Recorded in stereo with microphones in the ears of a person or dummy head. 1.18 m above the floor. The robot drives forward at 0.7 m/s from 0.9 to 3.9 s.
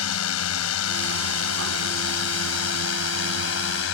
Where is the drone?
80° left; by 4.0 s 65° left (ahead or behind).